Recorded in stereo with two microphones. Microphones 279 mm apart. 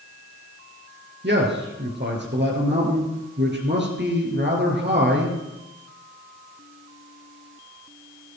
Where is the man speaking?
40° right (ahead or behind), 4 m.